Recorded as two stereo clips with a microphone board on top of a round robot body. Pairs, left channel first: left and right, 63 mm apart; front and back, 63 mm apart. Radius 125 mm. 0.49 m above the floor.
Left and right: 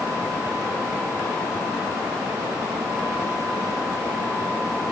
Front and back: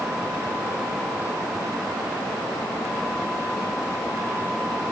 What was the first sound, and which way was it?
Only background noise.